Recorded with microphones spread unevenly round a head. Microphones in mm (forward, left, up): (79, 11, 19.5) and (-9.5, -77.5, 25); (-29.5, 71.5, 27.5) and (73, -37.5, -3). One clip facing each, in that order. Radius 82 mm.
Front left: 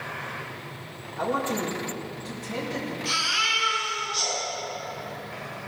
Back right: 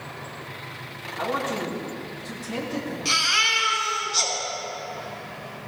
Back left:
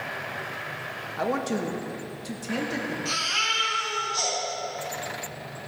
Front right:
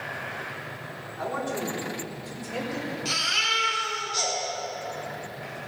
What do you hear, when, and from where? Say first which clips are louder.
1.2 s a man speaking: even, back left 3 dB; 120° left, 1.3 m; by 3.0 s 145° left, 2.5 m
3.0 s a baby crying: back right 2 dB, even; 125° right, 4.5 m